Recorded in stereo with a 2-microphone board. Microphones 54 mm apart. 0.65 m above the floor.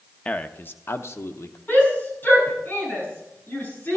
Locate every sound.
0.2 s a man speaking: 25° left (ahead or behind), 0.8 m; by 1.6 s 60° left (ahead or behind), 1.2 m
1.7 s a shout: 40° left (ahead or behind), 7 m